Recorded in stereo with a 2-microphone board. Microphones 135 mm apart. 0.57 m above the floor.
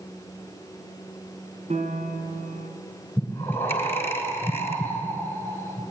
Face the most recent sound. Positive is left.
turn(degrees=20)  # may be behind; listen again after turning